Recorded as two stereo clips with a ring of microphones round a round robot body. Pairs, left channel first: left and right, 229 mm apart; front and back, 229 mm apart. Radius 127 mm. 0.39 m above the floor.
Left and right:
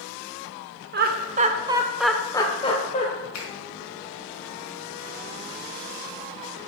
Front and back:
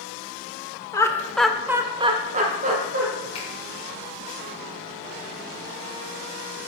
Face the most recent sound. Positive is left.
turn(degrees=65)